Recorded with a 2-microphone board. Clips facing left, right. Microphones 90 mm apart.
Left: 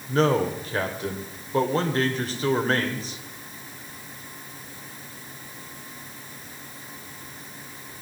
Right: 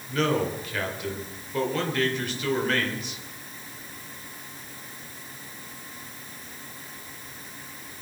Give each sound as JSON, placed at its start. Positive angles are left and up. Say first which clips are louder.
{"t": 0.1, "sound": "a man speaking", "louder": "left 4 dB", "side_deg": 35, "distance_m": 2.5}